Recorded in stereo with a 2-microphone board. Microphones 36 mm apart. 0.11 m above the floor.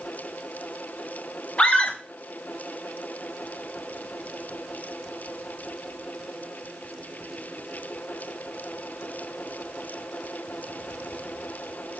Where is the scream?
35° left (ahead or behind), 1.4 m.